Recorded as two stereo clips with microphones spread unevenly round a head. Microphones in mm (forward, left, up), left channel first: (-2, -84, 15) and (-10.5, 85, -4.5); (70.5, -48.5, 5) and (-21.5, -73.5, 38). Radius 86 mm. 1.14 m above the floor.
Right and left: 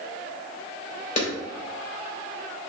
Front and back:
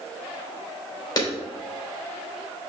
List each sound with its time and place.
1.2 s a clap: 35° right, 3.5 m